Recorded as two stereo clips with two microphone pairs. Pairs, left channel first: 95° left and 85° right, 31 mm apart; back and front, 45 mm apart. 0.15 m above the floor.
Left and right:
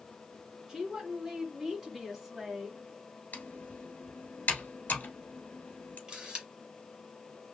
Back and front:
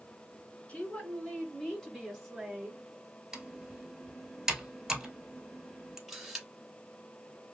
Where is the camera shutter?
80° right, 1.4 m.